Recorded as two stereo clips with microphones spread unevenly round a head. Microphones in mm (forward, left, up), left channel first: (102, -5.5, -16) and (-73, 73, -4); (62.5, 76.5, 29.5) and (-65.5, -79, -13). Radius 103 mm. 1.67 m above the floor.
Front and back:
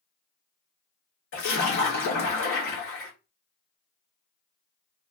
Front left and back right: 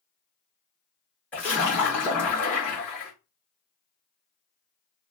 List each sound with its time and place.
1.3 s a splash: 25° right, 1.6 m